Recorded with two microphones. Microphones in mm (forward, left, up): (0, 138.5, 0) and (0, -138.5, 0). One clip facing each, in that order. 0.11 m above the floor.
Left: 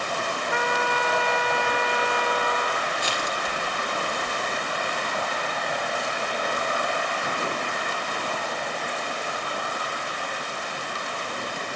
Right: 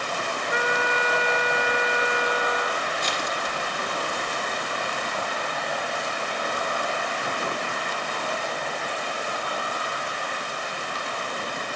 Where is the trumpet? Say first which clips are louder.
Right 1 dB; 20° right (ahead or behind), 0.9 m.